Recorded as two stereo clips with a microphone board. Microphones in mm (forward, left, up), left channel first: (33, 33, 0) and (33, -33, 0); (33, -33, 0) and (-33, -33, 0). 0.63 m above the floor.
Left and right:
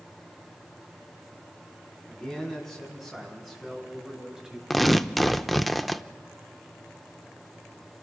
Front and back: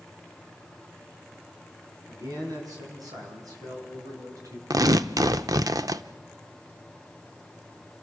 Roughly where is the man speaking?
Behind.